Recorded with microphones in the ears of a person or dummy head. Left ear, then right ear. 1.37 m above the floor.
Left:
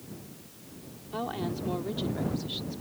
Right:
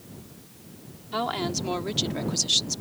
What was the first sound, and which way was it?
A woman speaking, 60° right (ahead or behind).